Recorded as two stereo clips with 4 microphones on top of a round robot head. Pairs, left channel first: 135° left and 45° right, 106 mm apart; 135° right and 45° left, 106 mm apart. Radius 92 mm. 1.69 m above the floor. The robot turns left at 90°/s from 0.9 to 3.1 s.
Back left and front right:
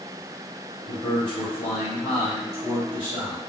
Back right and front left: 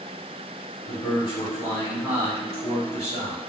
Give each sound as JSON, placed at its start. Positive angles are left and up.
{"t": 0.8, "sound": "a man speaking", "azimuth_deg": -140, "distance_m": 1.4}